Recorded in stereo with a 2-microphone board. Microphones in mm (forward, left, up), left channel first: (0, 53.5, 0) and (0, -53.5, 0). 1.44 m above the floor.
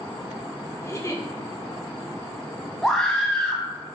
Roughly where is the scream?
Centre.